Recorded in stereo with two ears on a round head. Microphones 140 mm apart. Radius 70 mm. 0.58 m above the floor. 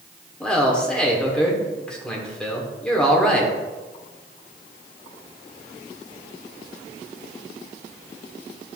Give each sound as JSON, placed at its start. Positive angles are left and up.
{"t": 0.4, "sound": "a man speaking", "side_deg": 5, "distance_m": 1.4}